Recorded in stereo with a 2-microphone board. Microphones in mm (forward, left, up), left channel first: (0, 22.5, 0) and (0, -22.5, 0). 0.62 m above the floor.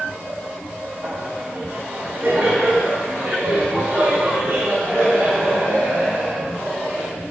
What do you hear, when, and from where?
1.0 s laughter: 25° right (ahead or behind), 3 m; by 7.2 s 35° right (ahead or behind), 6 m